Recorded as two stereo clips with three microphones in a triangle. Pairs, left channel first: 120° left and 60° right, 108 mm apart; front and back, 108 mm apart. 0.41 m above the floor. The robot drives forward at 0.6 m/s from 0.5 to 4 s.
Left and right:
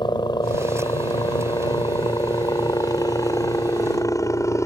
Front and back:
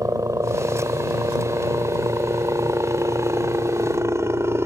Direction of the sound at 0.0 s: 135° left.